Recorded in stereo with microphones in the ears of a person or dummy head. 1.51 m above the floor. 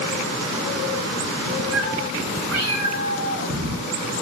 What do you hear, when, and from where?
1.7 s a cat meowing: 85° right, 7.5 m; by 4.2 s 80° right, 6.5 m